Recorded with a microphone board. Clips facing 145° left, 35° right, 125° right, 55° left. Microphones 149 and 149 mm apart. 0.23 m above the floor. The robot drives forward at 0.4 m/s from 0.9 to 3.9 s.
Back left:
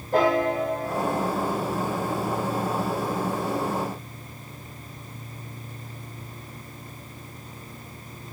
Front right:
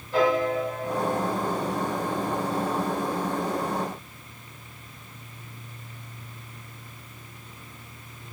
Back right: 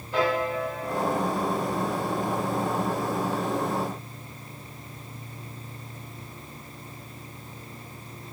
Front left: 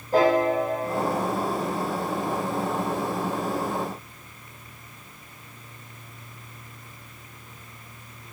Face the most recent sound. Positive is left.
turn(degrees=115)